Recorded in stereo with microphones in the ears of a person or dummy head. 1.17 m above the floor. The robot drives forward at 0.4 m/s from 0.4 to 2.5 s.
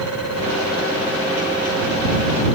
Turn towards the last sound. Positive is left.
No sound to turn to.